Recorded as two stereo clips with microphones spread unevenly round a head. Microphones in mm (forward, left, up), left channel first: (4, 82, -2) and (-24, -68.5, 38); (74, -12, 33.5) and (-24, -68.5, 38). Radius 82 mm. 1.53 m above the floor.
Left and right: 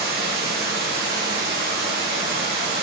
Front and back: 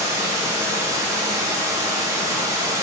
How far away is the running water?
About 0.9 m.